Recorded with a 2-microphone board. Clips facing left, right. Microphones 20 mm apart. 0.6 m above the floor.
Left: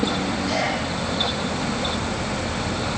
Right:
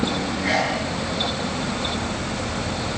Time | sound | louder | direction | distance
0.4 | a sneeze | right 4 dB | 55° right (ahead or behind) | 10 m